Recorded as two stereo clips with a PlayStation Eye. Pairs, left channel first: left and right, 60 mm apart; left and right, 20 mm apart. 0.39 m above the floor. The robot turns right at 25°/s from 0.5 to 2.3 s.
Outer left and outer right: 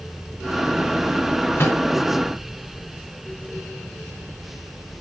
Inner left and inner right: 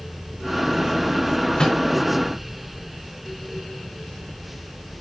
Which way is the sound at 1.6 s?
45° left (ahead or behind).